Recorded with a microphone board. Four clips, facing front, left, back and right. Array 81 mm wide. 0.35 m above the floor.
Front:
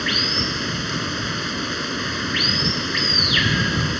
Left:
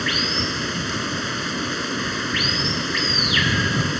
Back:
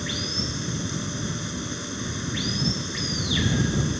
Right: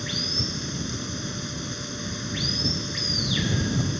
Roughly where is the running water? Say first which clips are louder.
Left 8 dB, front 7 dB; ahead left.